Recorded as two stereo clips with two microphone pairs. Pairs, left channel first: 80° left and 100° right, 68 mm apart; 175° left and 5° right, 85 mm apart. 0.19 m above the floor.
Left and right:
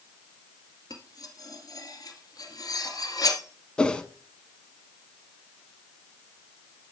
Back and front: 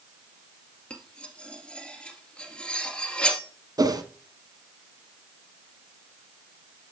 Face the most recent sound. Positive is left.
turn(degrees=10)